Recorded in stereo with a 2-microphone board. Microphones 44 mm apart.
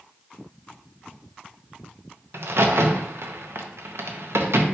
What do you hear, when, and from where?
2.3 s a crack: 75° right (ahead or behind), 0.7 m